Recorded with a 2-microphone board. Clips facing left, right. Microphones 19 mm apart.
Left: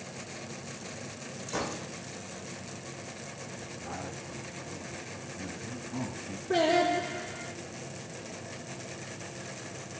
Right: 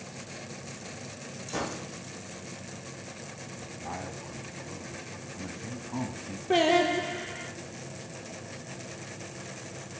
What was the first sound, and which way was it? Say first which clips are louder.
A gunshot: even; 10° right (ahead or behind).